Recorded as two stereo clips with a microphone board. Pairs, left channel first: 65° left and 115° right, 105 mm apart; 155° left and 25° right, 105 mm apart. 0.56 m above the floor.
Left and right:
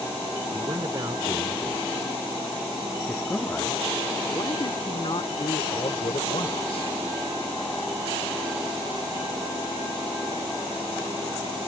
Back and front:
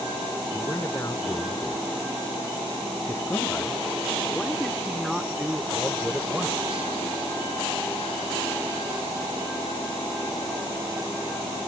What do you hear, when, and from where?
0.5 s a man speaking: 150° right; by 6.9 s 55° left